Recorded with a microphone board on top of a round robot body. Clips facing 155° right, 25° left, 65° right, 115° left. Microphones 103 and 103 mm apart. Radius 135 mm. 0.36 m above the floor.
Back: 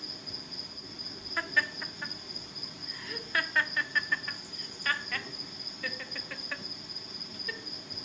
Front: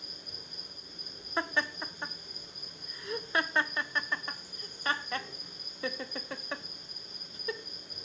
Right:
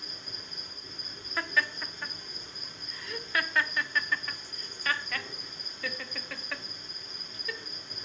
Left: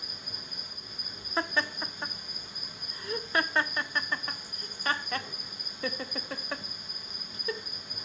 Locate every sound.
0.0 s an insect: 165° right, 3 m
1.4 s laughter: 70° left, 1.0 m